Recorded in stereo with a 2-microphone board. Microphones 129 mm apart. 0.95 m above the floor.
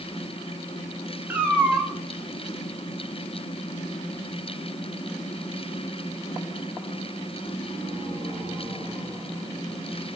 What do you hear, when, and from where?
1.3 s a cat meowing: 15° right (ahead or behind), 0.6 m